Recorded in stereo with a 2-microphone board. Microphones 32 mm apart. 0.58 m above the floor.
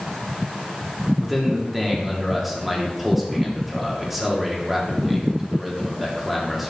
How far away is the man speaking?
About 1.3 m.